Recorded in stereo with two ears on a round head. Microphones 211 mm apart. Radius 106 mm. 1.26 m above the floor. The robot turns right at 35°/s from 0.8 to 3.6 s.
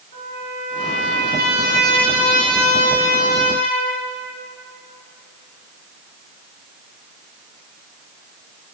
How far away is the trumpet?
About 2.5 m.